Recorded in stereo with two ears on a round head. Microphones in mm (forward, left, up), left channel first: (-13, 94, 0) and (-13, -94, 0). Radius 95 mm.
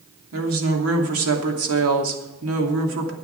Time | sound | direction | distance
0.3 | a woman speaking | 70° right (ahead or behind) | 3 m